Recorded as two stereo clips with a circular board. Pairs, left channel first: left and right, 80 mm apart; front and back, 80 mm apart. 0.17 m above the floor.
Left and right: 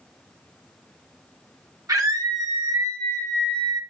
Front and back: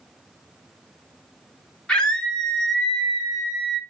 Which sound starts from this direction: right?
A scream, at 1.9 s.